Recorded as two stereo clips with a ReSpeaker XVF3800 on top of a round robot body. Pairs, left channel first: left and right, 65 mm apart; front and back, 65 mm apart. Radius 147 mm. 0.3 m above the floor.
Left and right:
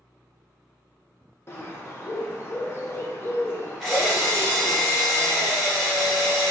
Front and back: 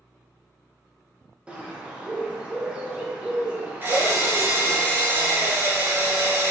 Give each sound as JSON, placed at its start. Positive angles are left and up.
{"t": 1.5, "sound": "a bird", "azimuth_deg": 115, "distance_m": 0.6}
{"t": 3.8, "sound": "a drill", "azimuth_deg": 170, "distance_m": 1.0}